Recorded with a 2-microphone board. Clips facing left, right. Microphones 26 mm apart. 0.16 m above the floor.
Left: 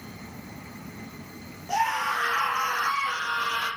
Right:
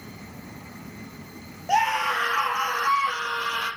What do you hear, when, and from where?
1.7 s a scream: 50° right (ahead or behind), 4 m; by 3.7 s 35° right (ahead or behind), 5 m